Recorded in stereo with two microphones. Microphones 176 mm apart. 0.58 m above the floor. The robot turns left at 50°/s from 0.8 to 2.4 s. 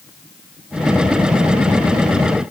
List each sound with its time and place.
Only background noise.